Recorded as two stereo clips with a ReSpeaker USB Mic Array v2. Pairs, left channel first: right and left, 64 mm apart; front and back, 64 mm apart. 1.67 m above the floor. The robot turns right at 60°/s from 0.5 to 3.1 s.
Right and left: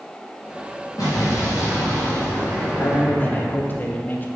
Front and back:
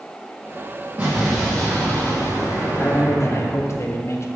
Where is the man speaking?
55° right, 0.8 m; by 4.2 s 35° right, 0.8 m.